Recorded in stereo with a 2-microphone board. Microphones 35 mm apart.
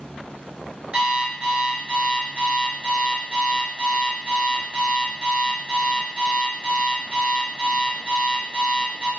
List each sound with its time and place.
0.9 s an alarm clock: 30° right (ahead or behind), 1.1 m